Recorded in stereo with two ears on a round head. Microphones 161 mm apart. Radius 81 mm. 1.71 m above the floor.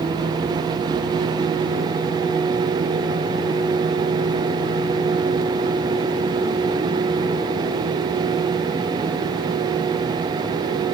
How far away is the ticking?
No ticking in this recording.